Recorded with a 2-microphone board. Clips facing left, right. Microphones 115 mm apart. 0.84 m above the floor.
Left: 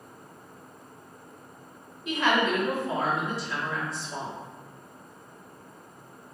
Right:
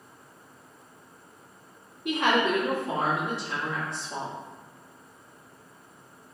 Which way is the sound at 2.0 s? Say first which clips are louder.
Right 1 dB; 65° right (ahead or behind).